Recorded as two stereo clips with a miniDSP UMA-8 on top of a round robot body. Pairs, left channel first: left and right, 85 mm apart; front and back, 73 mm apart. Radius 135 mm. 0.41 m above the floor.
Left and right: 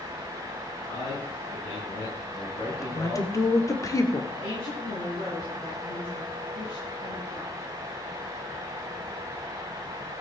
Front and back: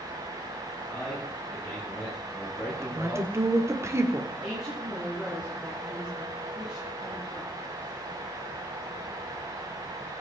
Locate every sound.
0.9 s a man speaking: 75° left, 7.5 m; by 3.7 s 90° left, 8 m
2.7 s a woman speaking: 135° left, 2 m
4.3 s a woman speaking: 95° left, 7.5 m